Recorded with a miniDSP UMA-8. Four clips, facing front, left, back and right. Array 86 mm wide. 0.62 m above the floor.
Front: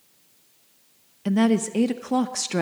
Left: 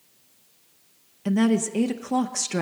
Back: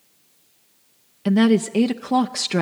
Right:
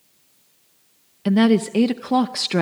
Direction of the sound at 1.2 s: 120° right.